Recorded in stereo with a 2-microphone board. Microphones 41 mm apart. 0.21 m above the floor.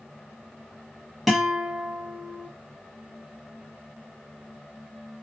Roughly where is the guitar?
Centre.